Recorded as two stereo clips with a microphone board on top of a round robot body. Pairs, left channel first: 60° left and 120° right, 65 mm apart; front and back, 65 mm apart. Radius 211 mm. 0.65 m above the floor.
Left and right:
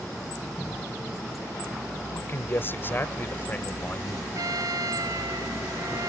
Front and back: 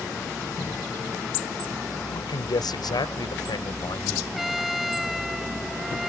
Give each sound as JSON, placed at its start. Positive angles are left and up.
{"t": 2.1, "sound": "a man speaking", "azimuth_deg": 5}
{"t": 4.3, "sound": "a trumpet", "azimuth_deg": -95}